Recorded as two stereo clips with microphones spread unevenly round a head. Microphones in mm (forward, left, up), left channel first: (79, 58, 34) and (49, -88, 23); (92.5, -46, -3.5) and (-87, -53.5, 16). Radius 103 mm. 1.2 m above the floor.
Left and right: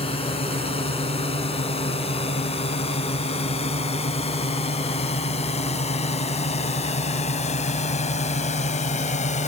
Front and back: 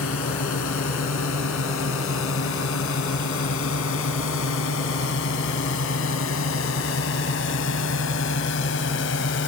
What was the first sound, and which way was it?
A drone, 30° left.